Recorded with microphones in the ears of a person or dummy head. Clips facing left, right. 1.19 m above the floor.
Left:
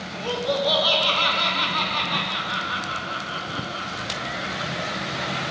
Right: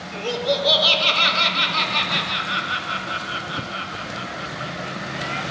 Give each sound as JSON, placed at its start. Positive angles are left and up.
{"t": 0.1, "sound": "laughter", "side_deg": -25, "distance_m": 0.6}